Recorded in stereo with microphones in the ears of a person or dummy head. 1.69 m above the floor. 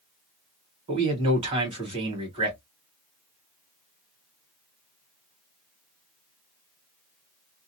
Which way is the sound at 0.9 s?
30° right (ahead or behind).